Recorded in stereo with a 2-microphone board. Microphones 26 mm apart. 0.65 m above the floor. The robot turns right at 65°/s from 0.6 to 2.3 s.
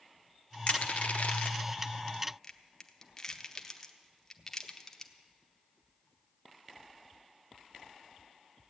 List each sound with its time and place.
0.7 s crushing: 50° left (ahead or behind), 0.9 m; by 5.1 s 20° left (ahead or behind), 0.9 m